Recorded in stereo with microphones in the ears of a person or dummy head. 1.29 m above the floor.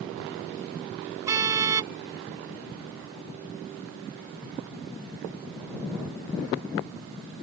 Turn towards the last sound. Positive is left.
turn(degrees=-20)  # may be behind; listen again after turning